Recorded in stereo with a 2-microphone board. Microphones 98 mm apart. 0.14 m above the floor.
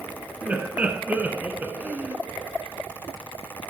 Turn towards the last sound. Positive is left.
turn(degrees=-15)  # may be behind; listen again after turning